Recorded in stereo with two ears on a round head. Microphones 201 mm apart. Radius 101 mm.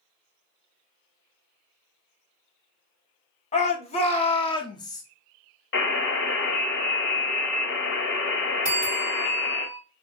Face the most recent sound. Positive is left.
turn(degrees=-5)  # may be behind; listen again after turning